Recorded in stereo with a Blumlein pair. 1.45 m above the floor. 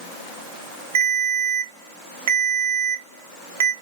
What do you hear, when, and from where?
0.9 s a ringtone: 60° right, 1.3 m